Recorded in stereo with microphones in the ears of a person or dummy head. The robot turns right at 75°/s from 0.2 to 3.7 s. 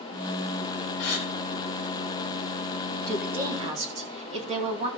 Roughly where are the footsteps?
I don't hear footsteps.